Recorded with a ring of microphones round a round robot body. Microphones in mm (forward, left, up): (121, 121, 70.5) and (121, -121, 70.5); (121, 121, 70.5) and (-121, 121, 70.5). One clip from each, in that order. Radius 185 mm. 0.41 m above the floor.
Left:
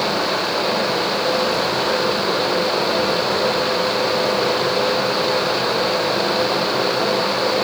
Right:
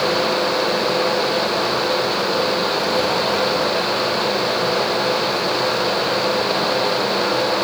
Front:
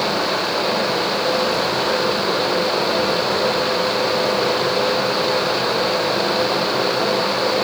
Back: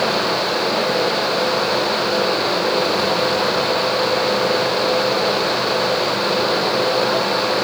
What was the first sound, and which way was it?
Only background noise.